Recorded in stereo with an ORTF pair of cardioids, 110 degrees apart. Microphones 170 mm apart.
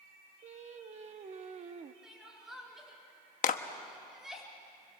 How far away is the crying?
About 4 m.